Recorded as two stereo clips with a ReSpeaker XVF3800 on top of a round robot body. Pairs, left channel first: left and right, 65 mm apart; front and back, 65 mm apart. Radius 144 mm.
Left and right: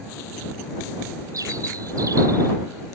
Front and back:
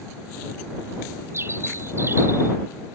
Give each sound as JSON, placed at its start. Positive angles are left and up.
{"t": 1.3, "sound": "a bird", "azimuth_deg": -130}